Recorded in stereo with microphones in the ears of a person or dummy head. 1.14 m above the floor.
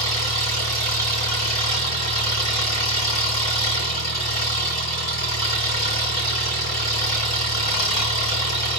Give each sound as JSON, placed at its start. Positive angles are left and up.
{"t": 0.0, "sound": "an engine running", "side_deg": 45, "distance_m": 1.8}